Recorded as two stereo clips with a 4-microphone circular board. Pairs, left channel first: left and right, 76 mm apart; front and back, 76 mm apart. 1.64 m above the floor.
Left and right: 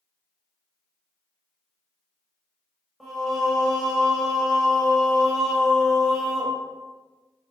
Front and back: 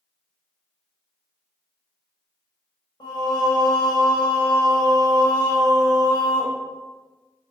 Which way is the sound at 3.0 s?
5° left.